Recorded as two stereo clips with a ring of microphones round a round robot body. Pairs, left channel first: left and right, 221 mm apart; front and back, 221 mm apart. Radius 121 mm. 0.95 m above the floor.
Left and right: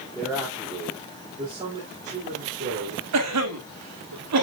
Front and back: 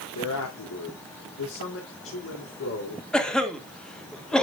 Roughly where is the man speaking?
Ahead.